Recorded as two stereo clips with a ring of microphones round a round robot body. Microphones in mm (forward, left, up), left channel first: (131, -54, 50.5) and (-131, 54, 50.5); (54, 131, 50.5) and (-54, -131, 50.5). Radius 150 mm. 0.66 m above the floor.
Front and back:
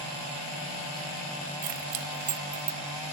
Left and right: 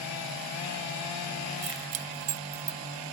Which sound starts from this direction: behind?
Keys jangling, at 1.6 s.